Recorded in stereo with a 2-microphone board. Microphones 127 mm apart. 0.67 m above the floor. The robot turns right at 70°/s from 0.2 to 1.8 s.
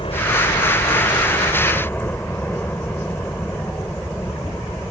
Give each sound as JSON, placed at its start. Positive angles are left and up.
{"t": 0.0, "sound": "a helicopter", "azimuth_deg": 50}